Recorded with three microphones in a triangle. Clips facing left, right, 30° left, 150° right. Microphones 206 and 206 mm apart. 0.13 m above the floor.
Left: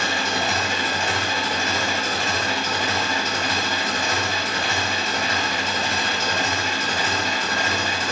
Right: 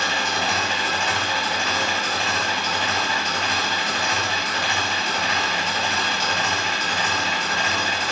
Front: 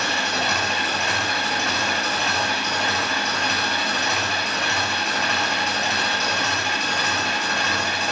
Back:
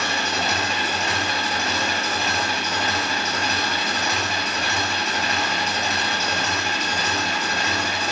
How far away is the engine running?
About 1.2 m.